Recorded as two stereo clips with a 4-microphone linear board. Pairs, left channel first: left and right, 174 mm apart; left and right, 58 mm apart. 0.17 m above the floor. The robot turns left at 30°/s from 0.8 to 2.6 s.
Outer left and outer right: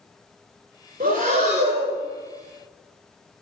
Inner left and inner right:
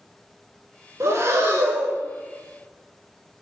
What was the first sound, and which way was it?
Breathing, 110° right.